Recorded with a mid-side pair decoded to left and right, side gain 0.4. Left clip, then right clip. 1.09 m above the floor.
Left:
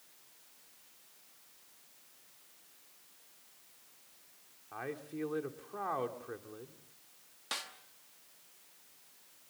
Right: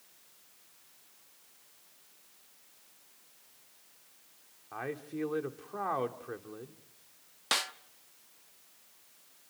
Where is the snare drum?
65° right, 0.9 m.